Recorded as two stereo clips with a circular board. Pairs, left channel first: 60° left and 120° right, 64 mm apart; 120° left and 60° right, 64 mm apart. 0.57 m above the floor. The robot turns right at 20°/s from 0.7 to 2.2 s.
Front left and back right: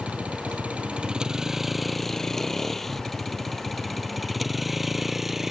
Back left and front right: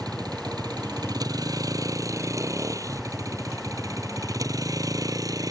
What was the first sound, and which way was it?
A vehicle, 50° right.